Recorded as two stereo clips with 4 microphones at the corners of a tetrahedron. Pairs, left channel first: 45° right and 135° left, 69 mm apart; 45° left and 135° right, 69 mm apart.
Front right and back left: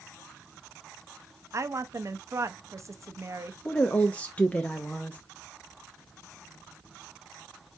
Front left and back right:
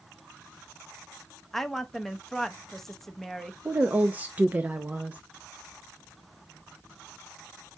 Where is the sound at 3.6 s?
90° right, 0.6 m.